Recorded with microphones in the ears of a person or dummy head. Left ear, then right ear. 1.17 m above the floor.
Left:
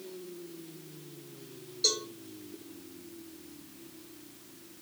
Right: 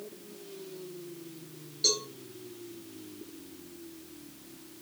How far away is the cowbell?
About 3 m.